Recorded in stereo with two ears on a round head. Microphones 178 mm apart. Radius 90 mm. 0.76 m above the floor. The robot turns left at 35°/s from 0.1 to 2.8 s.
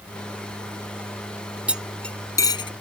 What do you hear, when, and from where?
1.7 s cutlery clinking: 5° right (ahead or behind); by 2.7 s 30° left (ahead or behind)